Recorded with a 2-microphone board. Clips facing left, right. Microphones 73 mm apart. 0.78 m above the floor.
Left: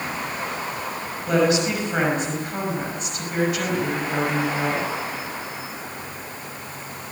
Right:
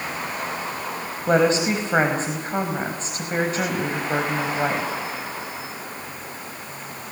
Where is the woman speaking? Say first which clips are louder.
Right 1 dB; 35° right (ahead or behind), 5 m.